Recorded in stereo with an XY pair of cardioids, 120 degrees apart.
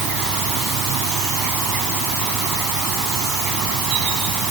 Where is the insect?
70° right.